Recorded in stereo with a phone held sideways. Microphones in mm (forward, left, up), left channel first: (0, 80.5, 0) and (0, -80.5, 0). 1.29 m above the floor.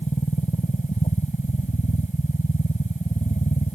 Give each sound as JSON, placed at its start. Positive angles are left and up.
{"t": 0.0, "sound": "a machine running", "side_deg": 50}